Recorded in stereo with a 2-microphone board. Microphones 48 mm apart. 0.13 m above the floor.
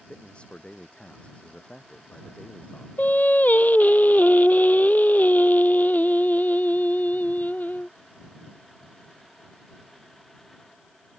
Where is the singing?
40° left (ahead or behind).